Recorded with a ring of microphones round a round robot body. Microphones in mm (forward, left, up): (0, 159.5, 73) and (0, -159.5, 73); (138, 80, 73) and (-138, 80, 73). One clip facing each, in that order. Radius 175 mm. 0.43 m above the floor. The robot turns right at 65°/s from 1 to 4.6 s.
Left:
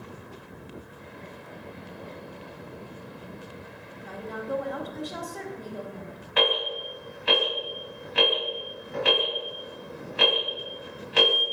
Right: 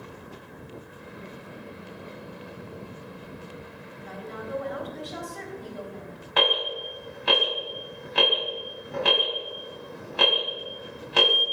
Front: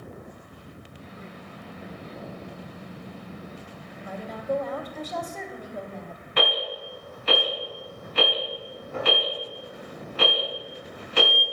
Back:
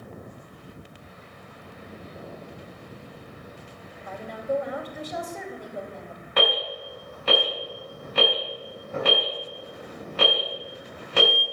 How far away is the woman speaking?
About 1.7 m.